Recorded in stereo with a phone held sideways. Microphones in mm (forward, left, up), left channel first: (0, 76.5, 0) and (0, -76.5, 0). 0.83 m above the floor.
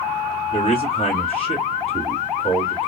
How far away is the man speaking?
About 2 m.